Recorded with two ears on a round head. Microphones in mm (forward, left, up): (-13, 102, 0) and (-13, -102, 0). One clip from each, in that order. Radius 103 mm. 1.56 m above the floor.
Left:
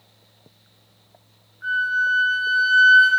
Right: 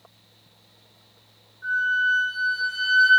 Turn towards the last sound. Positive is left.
turn(degrees=75)  # may be behind; listen again after turning